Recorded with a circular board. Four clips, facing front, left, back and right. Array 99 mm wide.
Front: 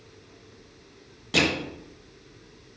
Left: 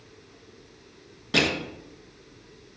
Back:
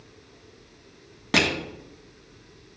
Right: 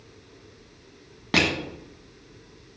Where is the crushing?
135° right, 1.8 m.